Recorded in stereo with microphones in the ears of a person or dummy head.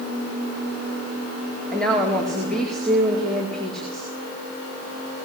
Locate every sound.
1.7 s a woman speaking: 5° left (ahead or behind), 4.5 m